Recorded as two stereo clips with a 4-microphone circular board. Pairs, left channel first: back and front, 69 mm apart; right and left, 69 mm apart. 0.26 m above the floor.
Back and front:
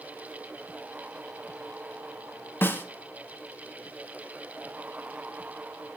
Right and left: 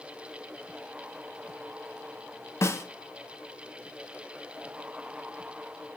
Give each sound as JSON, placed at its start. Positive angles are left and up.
{"t": 2.6, "sound": "a snare drum", "azimuth_deg": -130, "distance_m": 0.8}